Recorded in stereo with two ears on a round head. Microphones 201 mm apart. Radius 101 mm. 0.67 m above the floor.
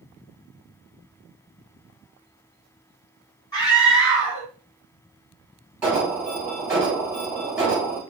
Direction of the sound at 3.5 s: 20° left (ahead or behind).